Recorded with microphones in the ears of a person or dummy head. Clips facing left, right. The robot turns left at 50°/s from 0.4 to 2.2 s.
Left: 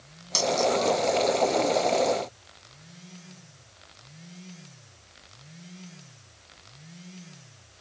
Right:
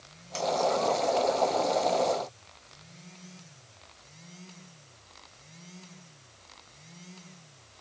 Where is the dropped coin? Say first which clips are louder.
Left 3 dB; 75° left (ahead or behind).